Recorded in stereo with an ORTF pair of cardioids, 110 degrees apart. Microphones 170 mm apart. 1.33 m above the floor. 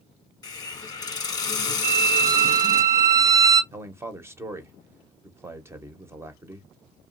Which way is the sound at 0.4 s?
25° left.